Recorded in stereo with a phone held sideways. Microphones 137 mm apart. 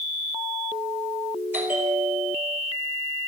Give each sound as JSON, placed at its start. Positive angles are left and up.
{"t": 1.5, "sound": "a bell", "side_deg": -15, "distance_m": 5.0}